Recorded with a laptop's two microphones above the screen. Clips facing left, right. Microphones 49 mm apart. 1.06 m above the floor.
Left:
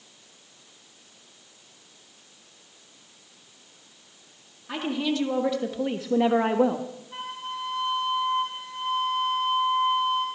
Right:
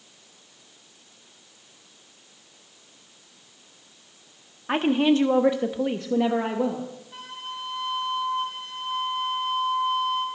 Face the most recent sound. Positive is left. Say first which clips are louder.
# left 3 dB
turn(degrees=25)  # may be behind; listen again after turning